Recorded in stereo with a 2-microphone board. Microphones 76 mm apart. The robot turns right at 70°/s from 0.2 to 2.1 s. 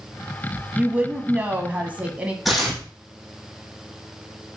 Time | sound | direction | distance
0.8 | a woman speaking | 10° right (ahead or behind) | 1.1 m
2.5 | tearing paper | centre (ahead or behind) | 3 m